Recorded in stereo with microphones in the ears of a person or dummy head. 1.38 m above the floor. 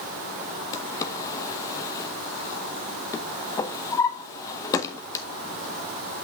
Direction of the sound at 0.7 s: 15° left (ahead or behind).